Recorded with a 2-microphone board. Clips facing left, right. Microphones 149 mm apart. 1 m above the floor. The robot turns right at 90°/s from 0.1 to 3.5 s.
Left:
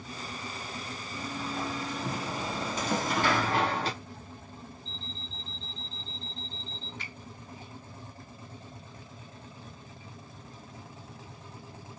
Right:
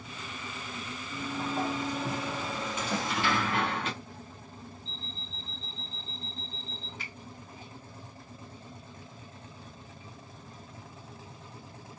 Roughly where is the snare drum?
Left.